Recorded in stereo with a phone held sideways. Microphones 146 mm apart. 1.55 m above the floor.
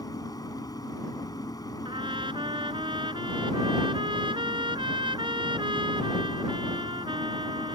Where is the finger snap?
I don't hear a finger snap.